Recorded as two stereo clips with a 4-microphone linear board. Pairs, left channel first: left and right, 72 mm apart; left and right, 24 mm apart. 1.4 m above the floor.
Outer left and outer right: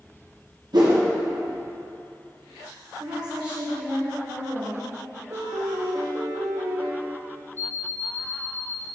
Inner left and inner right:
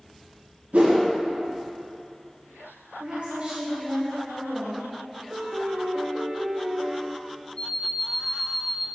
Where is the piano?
55° right (ahead or behind), 0.7 m.